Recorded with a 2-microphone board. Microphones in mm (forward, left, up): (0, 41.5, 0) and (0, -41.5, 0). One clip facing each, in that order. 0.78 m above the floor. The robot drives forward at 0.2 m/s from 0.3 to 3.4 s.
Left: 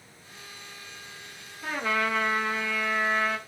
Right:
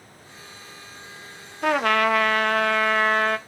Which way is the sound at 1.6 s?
70° right (ahead or behind).